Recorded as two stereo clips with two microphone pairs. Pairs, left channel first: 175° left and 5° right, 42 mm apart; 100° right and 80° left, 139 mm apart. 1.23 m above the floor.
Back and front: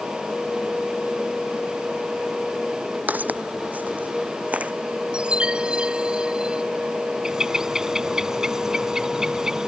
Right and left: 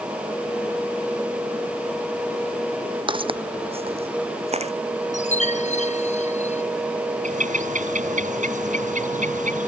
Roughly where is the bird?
Left.